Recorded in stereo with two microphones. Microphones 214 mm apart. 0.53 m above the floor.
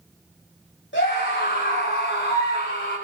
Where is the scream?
60° left (ahead or behind), 3.5 m.